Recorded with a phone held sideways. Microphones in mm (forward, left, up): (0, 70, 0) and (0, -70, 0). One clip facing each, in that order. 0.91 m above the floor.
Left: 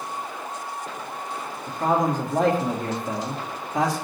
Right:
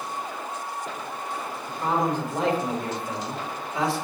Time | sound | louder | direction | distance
1.7 | a man speaking | left 3 dB | 45° left (ahead or behind) | 1.7 m